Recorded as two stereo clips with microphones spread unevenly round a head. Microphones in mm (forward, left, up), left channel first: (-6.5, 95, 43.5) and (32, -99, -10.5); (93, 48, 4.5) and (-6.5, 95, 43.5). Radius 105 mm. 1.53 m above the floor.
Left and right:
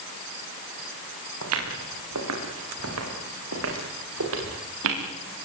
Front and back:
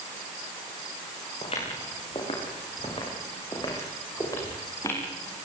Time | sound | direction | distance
1.4 | footsteps | 90° right | 8.5 m